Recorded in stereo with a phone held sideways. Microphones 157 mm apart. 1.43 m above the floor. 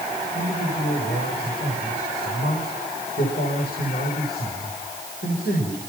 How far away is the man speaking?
About 7.5 m.